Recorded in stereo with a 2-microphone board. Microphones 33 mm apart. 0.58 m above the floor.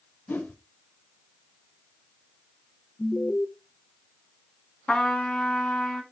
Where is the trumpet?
35° left (ahead or behind), 1.5 m.